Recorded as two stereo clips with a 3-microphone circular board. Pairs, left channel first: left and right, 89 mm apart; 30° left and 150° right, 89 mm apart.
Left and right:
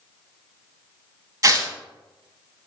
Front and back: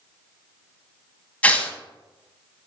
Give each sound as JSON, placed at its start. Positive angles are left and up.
{"t": 1.4, "sound": "tearing paper", "azimuth_deg": -45, "distance_m": 0.6}